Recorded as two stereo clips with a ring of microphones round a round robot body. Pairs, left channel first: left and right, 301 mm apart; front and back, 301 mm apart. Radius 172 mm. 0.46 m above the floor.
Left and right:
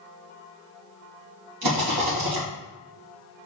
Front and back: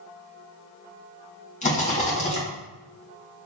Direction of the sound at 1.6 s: 65° right.